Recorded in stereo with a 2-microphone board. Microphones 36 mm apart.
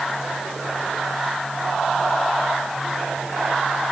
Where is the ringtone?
I don't hear a ringtone.